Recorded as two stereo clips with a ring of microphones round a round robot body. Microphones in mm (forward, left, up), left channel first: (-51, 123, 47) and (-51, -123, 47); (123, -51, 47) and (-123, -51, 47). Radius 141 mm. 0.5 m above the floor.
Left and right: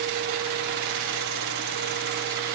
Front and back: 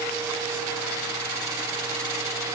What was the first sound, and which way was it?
Only background noise.